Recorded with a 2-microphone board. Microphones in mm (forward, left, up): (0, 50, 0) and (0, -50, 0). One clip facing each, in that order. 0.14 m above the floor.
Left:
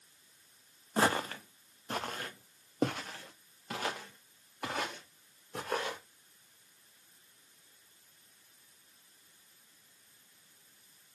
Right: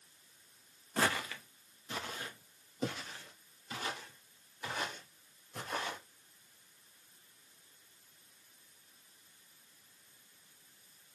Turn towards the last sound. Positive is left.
turn(degrees=80)